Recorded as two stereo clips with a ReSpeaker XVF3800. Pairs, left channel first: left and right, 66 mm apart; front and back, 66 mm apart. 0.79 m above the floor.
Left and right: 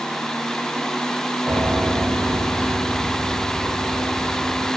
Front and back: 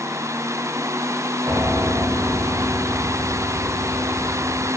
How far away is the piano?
About 7 m.